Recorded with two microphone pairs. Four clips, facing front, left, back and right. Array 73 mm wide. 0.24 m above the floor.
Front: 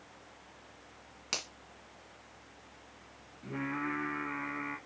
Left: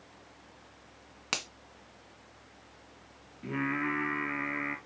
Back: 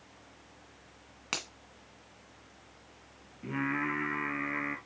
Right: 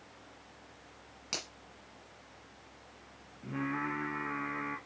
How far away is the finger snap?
About 1.7 m.